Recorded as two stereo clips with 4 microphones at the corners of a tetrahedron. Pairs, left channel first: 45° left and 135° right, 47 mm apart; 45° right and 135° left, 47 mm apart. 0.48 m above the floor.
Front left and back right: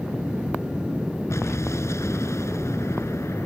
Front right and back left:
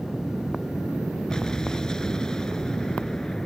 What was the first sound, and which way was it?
An explosion, 35° left.